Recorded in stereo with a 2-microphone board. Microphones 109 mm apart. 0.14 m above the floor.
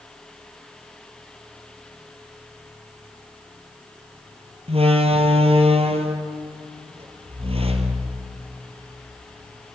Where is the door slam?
65° right (ahead or behind), 2.5 m.